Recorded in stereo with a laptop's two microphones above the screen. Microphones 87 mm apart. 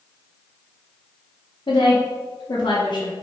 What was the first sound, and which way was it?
A woman speaking, 80° left.